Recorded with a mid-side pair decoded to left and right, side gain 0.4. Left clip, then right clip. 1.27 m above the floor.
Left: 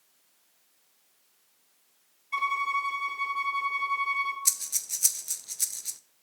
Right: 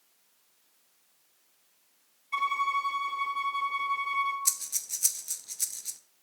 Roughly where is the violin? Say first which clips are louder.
Even; ahead.